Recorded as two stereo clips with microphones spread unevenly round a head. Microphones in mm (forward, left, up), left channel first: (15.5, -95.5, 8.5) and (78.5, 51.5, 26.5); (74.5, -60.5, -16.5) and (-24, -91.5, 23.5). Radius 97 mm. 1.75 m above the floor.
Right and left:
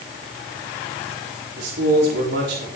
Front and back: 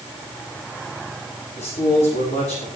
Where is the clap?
No clap in this recording.